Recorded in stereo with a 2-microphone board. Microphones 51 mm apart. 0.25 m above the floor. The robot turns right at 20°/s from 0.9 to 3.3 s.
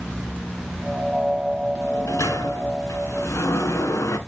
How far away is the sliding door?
About 0.9 m.